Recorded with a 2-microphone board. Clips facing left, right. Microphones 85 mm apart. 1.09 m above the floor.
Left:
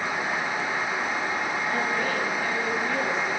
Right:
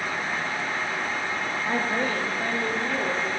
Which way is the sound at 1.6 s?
40° right (ahead or behind).